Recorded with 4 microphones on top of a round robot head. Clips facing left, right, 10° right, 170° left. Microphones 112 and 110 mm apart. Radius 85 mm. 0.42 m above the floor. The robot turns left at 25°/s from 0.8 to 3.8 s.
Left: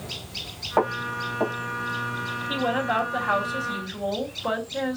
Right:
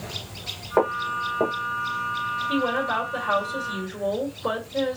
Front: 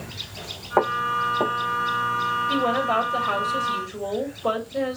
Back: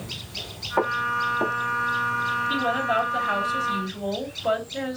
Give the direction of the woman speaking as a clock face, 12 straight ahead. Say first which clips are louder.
Even, front 2 dB; 12 o'clock.